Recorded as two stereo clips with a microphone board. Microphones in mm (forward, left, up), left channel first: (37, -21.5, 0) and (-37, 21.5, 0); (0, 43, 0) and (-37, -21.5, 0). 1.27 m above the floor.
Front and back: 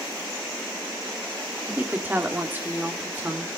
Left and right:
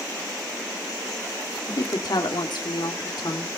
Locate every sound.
1.7 s a woman speaking: 80° left, 2.5 m